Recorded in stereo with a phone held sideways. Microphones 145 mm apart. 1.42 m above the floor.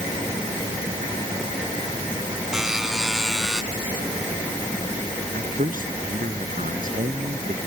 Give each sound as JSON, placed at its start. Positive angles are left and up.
{"t": 2.5, "sound": "a buzzer", "side_deg": -5}
{"t": 5.3, "sound": "a man speaking", "side_deg": -70}